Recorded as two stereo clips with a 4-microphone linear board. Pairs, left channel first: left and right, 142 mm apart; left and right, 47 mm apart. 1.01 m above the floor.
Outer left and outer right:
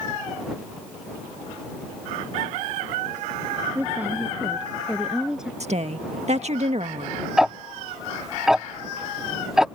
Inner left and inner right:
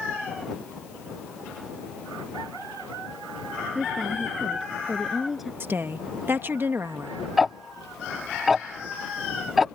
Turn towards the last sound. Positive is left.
turn(degrees=-5)  # may be behind; listen again after turning